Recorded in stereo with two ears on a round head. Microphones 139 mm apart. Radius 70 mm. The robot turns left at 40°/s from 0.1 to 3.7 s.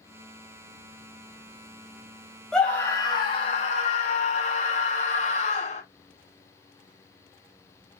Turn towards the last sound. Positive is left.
turn(degrees=130)